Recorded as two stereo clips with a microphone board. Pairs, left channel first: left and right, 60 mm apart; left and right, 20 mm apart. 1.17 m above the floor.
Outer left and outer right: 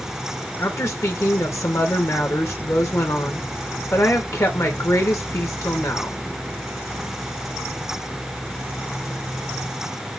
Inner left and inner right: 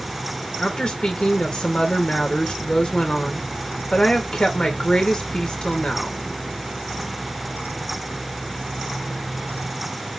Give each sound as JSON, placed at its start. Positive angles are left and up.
{"t": 0.6, "sound": "a woman speaking", "side_deg": 55, "distance_m": 1.6}